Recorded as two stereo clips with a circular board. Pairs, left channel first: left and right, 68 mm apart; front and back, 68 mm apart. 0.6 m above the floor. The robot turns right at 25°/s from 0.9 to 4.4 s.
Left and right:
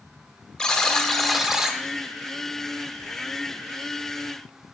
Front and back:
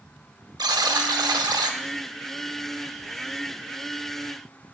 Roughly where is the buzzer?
Behind.